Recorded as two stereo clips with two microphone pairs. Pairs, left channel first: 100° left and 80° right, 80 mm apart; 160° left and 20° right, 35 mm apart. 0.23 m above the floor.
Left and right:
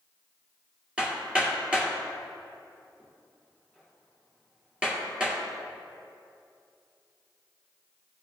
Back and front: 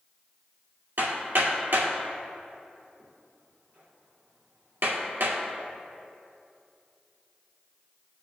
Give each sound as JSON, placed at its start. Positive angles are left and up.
{"t": 1.0, "sound": "hammering", "azimuth_deg": -5, "distance_m": 2.0}